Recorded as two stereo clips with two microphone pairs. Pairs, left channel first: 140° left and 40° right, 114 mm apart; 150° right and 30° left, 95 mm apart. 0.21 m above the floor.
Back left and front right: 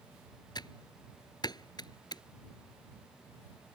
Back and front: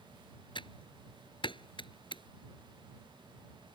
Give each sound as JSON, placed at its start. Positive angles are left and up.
{"t": 0.6, "sound": "typing on a keyboard", "azimuth_deg": -170}